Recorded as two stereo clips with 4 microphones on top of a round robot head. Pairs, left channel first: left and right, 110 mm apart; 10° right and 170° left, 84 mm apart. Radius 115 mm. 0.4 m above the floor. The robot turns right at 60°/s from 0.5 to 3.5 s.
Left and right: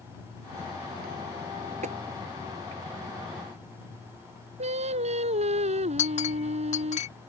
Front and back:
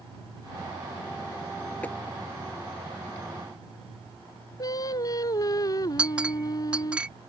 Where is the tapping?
85° right; by 2.0 s 80° right.